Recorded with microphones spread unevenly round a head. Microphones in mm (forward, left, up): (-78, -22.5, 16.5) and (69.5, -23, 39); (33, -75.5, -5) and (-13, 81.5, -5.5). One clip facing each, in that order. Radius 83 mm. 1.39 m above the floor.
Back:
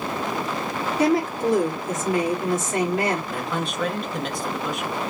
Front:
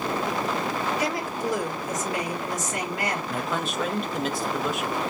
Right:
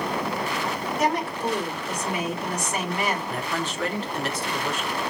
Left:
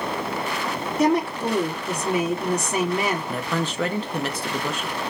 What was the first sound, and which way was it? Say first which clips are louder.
A woman speaking: back 7 dB, left 6 dB; 115° left.